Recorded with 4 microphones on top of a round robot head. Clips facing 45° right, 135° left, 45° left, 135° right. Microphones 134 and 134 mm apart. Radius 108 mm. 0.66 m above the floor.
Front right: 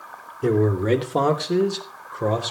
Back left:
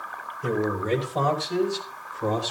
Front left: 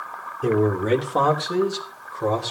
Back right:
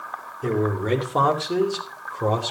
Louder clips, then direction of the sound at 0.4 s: Front right 6 dB, front left 3 dB; 35° right.